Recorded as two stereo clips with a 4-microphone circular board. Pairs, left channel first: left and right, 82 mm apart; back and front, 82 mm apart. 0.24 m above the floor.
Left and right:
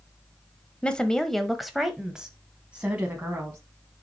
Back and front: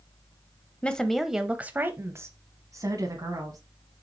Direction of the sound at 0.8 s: 135° left.